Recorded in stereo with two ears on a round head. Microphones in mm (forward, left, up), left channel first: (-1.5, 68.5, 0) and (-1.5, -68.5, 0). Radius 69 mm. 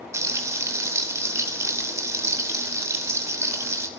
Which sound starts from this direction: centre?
Frying, at 0.1 s.